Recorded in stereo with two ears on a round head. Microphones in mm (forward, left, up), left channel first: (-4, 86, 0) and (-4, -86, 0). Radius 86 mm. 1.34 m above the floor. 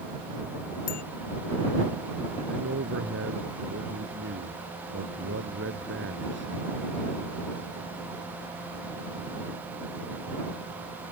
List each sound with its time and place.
0.9 s a bicycle bell: 50° left (ahead or behind)
2.5 s a man speaking: 65° right (ahead or behind)